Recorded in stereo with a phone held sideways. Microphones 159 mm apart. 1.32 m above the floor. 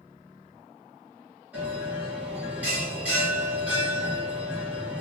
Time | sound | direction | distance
1.5 | a bell | 10° right (ahead or behind) | 2 m